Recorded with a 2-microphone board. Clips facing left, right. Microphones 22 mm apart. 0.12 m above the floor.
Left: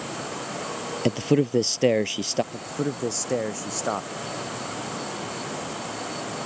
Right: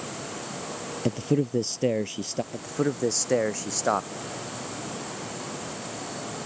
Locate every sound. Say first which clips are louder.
1.1 s a man speaking: left 4 dB; 35° left (ahead or behind)
2.5 s a man speaking: right 1 dB; 20° right (ahead or behind)